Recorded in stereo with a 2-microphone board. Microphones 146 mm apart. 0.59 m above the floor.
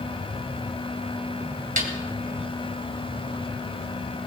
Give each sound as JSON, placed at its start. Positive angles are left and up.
{"t": 1.8, "sound": "a snare drum", "side_deg": -70, "distance_m": 2.0}